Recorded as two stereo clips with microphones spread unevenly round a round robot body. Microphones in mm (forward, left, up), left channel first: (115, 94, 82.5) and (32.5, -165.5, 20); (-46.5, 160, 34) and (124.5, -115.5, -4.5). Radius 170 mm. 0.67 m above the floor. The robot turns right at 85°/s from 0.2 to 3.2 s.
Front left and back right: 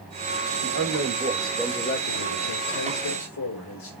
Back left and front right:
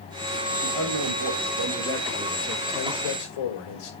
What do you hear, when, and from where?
0.6 s a man speaking: 105° right, 2.5 m; by 3.9 s 115° left, 2.5 m